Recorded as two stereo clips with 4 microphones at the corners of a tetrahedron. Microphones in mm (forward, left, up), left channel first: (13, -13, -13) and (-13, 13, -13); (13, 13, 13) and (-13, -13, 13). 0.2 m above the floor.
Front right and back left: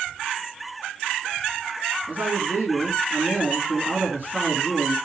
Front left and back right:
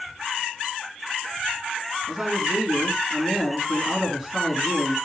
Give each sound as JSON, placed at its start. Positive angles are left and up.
{"t": 2.1, "sound": "a man speaking", "azimuth_deg": 150, "distance_m": 2.5}